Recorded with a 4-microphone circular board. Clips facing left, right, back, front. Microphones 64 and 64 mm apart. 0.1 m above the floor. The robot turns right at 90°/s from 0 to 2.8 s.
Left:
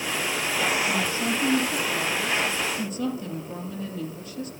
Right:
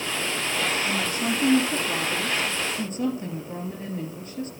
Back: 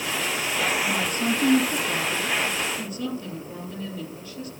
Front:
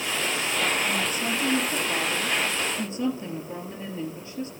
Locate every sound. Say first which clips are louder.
0.8 s a woman speaking: even, back 2 dB; 130° left, 2.5 m; by 4.5 s 55° right, 2.5 m